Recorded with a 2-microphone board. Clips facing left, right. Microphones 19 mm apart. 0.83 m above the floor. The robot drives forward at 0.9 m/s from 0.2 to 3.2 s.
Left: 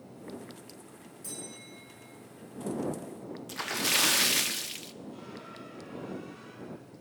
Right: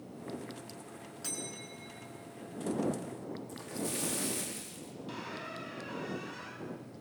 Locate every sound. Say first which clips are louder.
1.2 s a bell: right 2 dB; 40° right (ahead or behind), 5.5 m; by 2.0 s 50° right (ahead or behind), 5 m
3.5 s a splash: left 12 dB; 70° left (ahead or behind), 1.0 m
5.1 s a squeak: right 3 dB; 65° right (ahead or behind), 5 m